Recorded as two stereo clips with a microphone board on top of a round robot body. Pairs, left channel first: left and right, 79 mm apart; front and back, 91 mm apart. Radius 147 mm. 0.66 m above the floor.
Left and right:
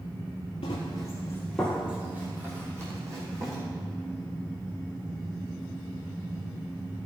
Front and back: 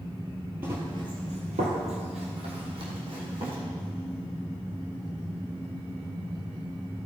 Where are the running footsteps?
110° left, 1.2 m; by 3.6 s 145° right, 3 m.